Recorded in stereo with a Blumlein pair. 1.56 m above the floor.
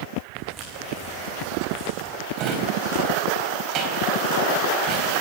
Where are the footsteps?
25° right, 7 m.